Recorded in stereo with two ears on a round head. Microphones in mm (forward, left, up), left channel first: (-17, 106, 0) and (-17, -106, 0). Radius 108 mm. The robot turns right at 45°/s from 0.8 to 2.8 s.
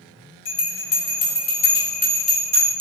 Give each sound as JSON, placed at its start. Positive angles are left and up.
{"t": 0.5, "sound": "a bell", "side_deg": 50, "distance_m": 1.3}